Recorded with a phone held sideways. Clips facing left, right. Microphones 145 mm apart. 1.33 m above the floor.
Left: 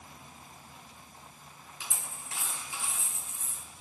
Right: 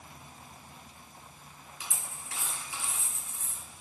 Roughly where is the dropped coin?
Left.